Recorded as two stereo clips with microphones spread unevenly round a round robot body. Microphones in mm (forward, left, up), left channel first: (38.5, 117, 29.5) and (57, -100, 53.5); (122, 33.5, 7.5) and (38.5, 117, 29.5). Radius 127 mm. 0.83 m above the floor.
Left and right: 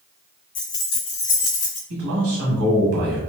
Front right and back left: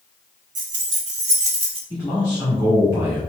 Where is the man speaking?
105° right, 1.2 m.